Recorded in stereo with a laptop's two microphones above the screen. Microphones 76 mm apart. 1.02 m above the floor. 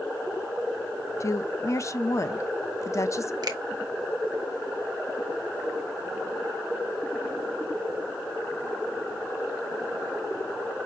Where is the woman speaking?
45° left (ahead or behind), 0.6 m.